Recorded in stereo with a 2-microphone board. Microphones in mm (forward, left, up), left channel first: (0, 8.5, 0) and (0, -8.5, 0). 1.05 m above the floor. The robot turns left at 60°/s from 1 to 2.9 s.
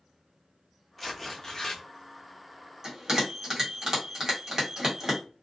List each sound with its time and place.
1.0 s tearing paper: 175° left, 0.7 m; by 1.8 s 125° left, 0.7 m
2.8 s a bell: 25° right (ahead or behind), 1.4 m; by 5.2 s 30° right (ahead or behind), 1.4 m